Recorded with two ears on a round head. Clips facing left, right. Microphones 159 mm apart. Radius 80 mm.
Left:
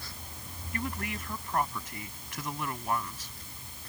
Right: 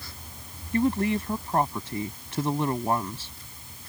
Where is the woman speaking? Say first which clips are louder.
Right 13 dB; 25° right (ahead or behind).